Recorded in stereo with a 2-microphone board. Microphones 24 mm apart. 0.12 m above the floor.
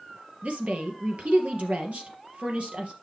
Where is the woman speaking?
60° right (ahead or behind), 2.5 m.